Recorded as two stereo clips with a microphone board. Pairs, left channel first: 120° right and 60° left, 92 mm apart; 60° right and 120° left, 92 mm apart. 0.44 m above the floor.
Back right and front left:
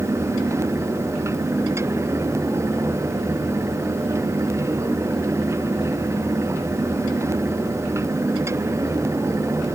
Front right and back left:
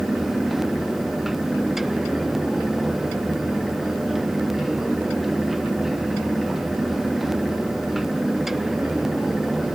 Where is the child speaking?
I don't hear a child speaking.